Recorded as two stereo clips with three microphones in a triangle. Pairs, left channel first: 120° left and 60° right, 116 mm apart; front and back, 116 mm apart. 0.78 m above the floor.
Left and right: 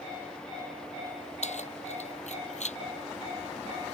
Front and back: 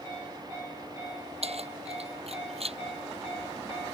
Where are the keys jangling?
145° left.